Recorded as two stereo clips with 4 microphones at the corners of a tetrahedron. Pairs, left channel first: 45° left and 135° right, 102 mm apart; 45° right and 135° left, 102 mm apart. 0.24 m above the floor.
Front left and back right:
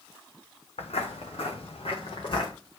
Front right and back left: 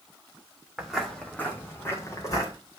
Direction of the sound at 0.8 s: 45° left.